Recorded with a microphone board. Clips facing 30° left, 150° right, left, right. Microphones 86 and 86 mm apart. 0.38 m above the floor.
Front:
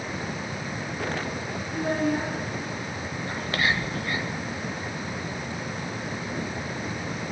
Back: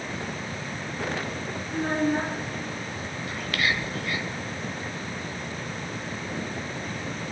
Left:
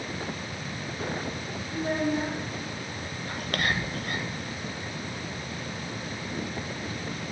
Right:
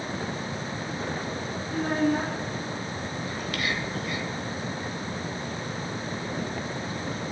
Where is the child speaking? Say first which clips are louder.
Back 1 dB, right 3 dB; 105° right, 3 m.